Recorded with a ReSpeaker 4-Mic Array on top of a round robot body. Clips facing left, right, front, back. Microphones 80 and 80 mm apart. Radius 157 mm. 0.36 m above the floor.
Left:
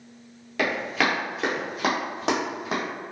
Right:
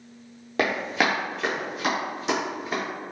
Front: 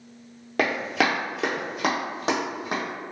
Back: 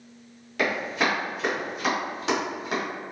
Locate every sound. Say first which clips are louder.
0.6 s running footsteps: right 1 dB, front 2 dB; 40° right, 0.9 m; by 2.8 s 70° left, 1.5 m